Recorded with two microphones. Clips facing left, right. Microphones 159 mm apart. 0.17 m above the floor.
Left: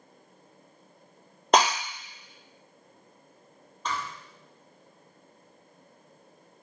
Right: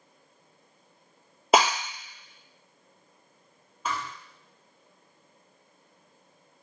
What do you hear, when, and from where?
1.5 s breaking glass: 5° right (ahead or behind), 0.7 m
3.9 s a thud: 5° right (ahead or behind), 0.7 m